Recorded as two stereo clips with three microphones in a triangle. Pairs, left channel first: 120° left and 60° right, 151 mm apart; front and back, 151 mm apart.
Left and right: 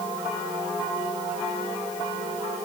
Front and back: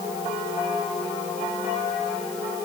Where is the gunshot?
I don't hear a gunshot.